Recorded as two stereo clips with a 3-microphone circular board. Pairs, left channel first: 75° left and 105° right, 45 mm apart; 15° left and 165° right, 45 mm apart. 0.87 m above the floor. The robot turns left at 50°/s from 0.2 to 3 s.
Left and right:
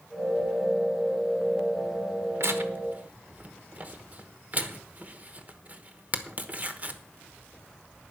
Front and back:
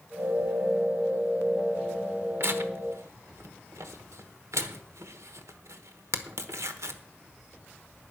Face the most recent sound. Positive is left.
turn(degrees=-160)